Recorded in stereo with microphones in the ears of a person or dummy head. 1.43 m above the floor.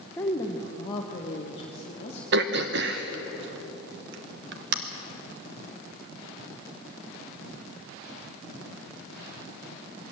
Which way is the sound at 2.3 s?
65° right (ahead or behind).